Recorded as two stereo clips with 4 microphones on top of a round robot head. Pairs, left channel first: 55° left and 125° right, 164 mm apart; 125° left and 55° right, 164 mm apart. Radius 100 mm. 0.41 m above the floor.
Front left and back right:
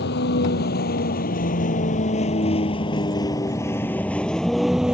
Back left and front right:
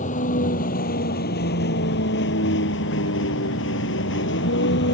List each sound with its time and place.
0.0 s a vehicle: 80° left; by 4.9 s 150° left